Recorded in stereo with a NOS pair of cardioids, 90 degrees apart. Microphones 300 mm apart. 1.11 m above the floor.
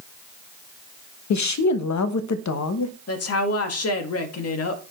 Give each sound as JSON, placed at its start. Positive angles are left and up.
{"t": 1.3, "sound": "a woman speaking", "azimuth_deg": 70, "distance_m": 1.0}
{"t": 3.1, "sound": "a woman speaking", "azimuth_deg": 55, "distance_m": 2.0}